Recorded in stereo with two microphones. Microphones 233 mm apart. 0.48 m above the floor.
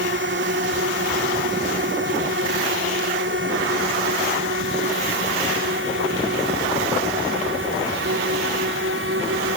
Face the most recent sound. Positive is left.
turn(degrees=-60)  # may be behind; listen again after turning